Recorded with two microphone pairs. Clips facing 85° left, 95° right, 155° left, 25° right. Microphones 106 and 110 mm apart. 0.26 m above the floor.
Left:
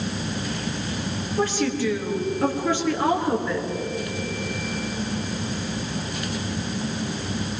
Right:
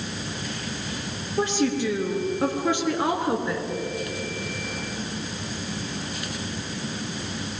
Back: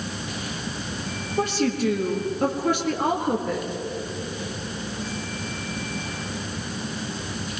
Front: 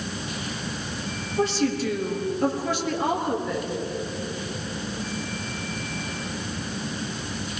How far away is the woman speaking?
About 5 m.